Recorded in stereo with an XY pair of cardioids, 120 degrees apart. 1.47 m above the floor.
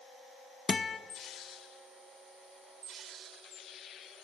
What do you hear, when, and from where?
0.7 s a guitar: 30° left, 0.9 m